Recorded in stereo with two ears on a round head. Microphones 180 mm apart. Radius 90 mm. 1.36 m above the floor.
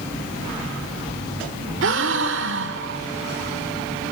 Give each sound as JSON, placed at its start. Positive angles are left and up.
{"t": 1.8, "sound": "a gasp", "side_deg": -65, "distance_m": 1.9}